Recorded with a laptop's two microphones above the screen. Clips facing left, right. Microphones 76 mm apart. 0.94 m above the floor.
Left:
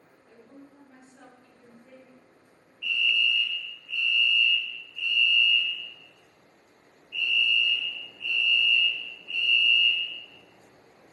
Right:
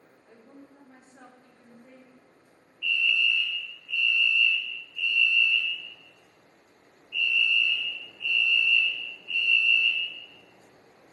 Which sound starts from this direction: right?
A woman speaking, at 0.3 s.